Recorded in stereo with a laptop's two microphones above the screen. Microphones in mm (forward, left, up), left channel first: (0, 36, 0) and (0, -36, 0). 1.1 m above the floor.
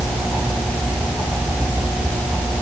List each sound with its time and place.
Only background noise.